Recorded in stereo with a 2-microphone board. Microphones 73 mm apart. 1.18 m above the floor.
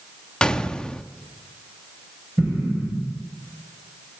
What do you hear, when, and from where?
0.4 s a gunshot: 10° left (ahead or behind), 0.7 m
2.4 s an explosion: 15° right (ahead or behind), 6 m